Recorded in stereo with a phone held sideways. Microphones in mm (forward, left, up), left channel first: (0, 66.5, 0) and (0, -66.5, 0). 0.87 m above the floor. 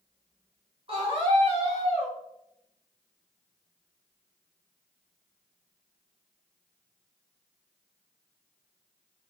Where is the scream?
45° right (ahead or behind), 1.5 m; by 2.1 s 55° right (ahead or behind), 1.7 m.